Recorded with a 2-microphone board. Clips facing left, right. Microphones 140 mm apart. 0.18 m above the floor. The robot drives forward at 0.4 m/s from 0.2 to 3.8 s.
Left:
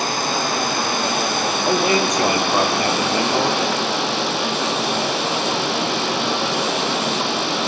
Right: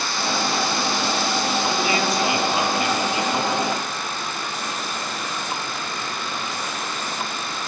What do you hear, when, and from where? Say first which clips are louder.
0.0 s running water: left 3 dB; 50° left (ahead or behind), 2.5 m; by 7.7 s 80° left, 2 m
1.6 s a man speaking: left 4 dB; 40° left (ahead or behind), 4.5 m; by 3.6 s 50° left (ahead or behind), 4 m